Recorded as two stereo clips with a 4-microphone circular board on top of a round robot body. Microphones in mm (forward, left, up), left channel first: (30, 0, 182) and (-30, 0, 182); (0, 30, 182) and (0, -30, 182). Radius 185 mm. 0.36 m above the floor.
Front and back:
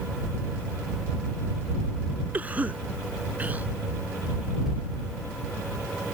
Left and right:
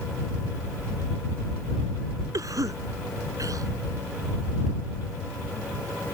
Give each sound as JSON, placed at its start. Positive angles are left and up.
{"t": 2.3, "sound": "a cough", "azimuth_deg": -115}